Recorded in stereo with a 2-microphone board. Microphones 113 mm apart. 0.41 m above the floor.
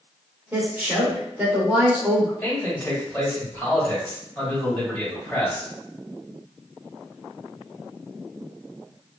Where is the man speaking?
10° left (ahead or behind), 2.0 m.